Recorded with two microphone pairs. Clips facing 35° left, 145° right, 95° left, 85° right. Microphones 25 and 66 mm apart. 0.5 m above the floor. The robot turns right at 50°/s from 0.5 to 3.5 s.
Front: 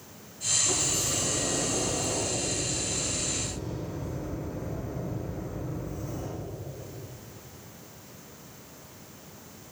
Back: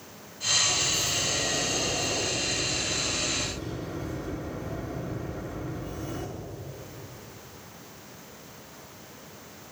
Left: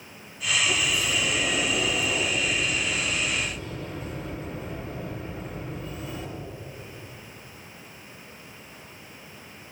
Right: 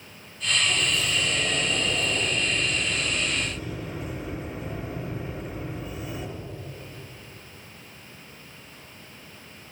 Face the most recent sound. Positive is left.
turn(degrees=-175)